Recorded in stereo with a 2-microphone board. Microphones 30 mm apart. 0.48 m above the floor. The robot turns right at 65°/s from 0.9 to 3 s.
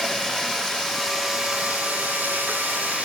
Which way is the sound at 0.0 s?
175° right.